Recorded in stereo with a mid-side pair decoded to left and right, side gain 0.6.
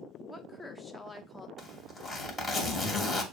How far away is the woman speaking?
About 1.4 m.